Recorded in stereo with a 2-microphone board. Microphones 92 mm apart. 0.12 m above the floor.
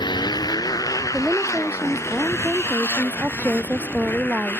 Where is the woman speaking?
15° right (ahead or behind).